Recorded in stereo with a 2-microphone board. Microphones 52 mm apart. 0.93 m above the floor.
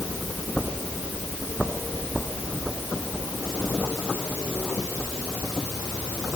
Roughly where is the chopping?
No chopping in this recording.